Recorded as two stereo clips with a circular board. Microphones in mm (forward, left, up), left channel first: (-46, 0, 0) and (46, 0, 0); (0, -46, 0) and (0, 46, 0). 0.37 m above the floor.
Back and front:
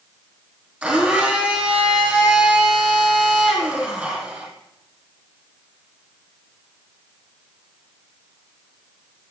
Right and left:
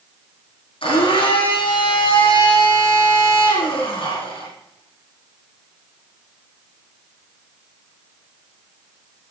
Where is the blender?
80° right, 4 m.